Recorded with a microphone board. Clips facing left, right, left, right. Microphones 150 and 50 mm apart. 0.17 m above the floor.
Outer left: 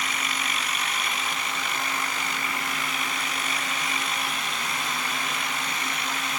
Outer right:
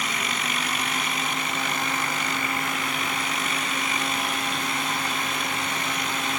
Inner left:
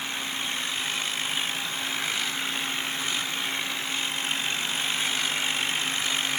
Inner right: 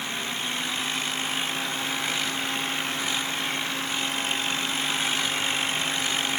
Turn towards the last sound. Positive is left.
No sound to turn to.